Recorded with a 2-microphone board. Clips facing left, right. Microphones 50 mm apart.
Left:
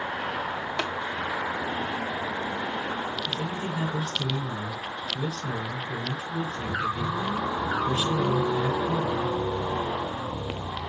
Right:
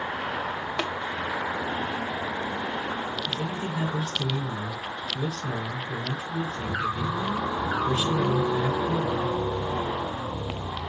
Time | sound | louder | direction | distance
0.8 | tapping | right 1 dB | 5° right (ahead or behind) | 1.3 m
3.3 | a man speaking | even | 15° right (ahead or behind) | 4.5 m